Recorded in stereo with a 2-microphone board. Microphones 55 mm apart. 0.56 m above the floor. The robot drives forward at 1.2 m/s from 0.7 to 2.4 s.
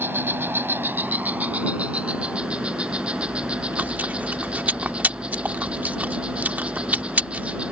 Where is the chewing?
30° right (ahead or behind).